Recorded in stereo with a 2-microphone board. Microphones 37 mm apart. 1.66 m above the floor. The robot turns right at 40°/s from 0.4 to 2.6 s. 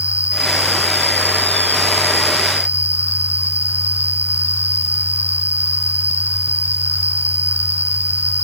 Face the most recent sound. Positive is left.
turn(degrees=-50)